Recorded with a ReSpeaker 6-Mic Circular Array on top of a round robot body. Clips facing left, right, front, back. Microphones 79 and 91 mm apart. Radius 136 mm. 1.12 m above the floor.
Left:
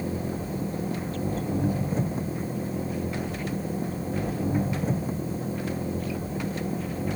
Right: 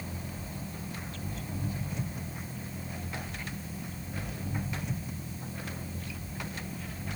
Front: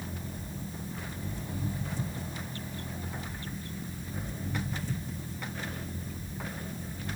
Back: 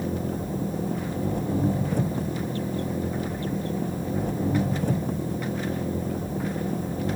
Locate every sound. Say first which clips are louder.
0.0 s an engine running: left 11 dB, back 12 dB; 145° left